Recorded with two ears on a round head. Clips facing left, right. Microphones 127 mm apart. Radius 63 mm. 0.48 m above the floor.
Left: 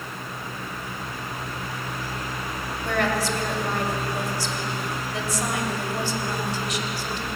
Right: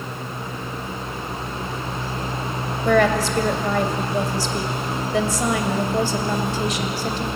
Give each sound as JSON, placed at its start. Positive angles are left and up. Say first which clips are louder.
{"t": 2.9, "sound": "a woman speaking", "louder": "right 7 dB", "side_deg": -65, "distance_m": 3.0}